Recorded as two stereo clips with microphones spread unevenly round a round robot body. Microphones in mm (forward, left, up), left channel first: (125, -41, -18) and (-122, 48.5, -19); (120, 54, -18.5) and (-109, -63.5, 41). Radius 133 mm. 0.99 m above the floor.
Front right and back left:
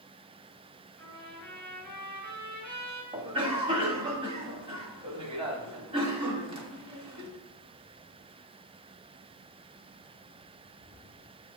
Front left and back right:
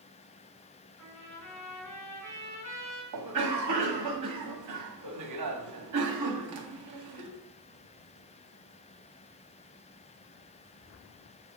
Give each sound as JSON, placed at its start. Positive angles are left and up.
{"t": 1.0, "sound": "a trumpet", "azimuth_deg": 65, "distance_m": 4.0}
{"t": 3.1, "sound": "a cough", "azimuth_deg": -130, "distance_m": 1.7}